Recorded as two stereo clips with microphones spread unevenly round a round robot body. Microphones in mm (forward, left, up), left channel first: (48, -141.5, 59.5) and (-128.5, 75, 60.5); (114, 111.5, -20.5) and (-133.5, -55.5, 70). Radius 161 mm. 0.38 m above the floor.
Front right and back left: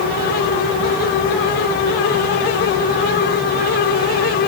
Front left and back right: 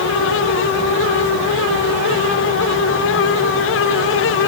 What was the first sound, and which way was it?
Only background noise.